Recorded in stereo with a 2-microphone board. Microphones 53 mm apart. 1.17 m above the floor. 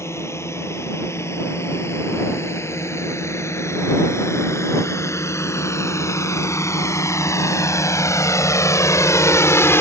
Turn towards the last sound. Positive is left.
turn(degrees=55)  # may be behind; listen again after turning